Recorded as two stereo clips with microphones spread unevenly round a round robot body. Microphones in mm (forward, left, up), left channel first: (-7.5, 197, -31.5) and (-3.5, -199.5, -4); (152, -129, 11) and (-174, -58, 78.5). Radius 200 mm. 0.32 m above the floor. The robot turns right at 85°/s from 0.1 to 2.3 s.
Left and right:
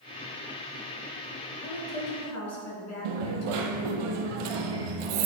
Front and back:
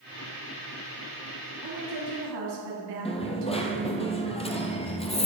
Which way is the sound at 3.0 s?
90° right.